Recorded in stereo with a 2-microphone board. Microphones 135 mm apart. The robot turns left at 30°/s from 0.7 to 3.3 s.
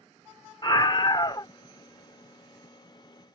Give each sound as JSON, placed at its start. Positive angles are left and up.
{"t": 0.6, "sound": "a scream", "side_deg": 35}